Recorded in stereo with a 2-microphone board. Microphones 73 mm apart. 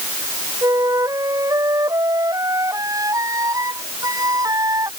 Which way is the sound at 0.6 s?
50° right (ahead or behind).